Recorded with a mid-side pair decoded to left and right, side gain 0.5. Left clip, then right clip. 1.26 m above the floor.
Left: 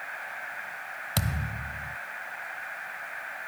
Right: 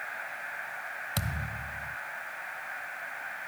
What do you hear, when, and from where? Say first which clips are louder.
1.2 s a thud: left 2 dB; 30° left